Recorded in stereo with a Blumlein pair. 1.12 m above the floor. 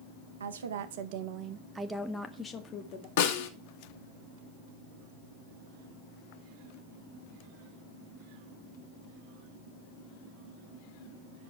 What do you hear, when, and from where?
0.4 s a woman speaking: 70° right, 1.1 m; by 3.1 s 30° left, 1.3 m
3.2 s a snare drum: 55° left, 1.6 m